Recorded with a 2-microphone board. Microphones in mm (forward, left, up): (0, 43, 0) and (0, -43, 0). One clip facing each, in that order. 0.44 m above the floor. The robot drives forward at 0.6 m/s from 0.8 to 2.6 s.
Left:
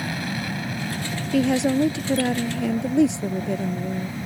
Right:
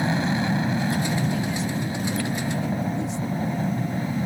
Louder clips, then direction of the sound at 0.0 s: Right 5 dB; 25° right (ahead or behind).